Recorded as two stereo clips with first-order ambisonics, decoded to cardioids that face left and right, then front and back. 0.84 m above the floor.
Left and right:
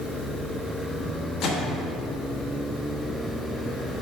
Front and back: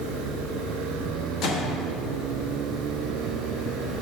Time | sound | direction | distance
1.4 | a microwave | 45° left | 1.0 m